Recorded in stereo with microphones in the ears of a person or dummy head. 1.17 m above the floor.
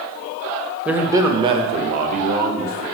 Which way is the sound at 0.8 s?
Centre (ahead or behind).